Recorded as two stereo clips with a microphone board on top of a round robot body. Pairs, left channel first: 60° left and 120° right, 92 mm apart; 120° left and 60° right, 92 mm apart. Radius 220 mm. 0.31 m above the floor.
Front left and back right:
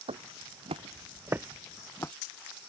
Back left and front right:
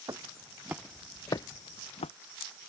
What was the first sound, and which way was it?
Footsteps, 115° right.